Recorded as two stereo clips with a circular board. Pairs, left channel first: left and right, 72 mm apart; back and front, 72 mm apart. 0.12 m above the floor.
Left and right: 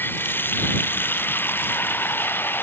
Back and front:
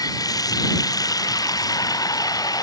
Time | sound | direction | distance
0.0 | running water | 150° left | ?